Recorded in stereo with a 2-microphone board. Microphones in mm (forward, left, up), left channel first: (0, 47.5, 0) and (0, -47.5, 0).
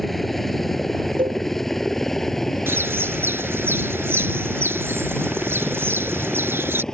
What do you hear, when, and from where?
0.0 s a helicopter: centre (ahead or behind); by 6.9 s 5° left (ahead or behind)
1.2 s a cowbell: 60° right (ahead or behind)
2.7 s a bird: 25° right (ahead or behind)